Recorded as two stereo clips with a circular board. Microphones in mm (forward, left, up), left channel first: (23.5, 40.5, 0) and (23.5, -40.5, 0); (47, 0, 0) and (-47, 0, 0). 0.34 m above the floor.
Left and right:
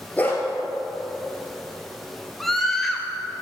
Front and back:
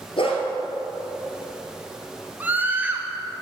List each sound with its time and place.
0.2 s a dog barking: 20° left, 2.5 m
2.4 s a scream: 165° left, 1.3 m